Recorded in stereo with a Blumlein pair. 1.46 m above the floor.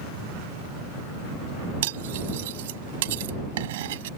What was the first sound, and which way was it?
Cutlery clinking, 55° right.